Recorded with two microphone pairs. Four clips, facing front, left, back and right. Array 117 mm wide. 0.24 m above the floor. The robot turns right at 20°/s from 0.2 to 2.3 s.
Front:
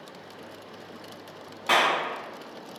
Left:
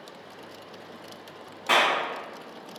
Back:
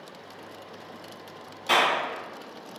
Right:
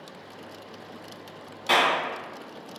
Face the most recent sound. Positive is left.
turn(degrees=20)